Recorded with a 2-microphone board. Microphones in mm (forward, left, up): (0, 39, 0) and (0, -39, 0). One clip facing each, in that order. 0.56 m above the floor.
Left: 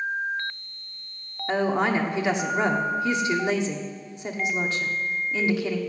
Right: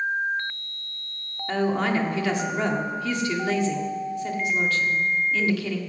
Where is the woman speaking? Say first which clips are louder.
Left 1 dB; 20° left (ahead or behind), 1.4 m.